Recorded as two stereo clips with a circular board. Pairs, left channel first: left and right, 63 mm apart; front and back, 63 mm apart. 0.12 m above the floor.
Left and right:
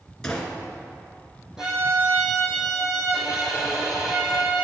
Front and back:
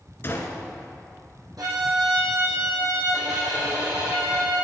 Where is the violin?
170° right, 5 m.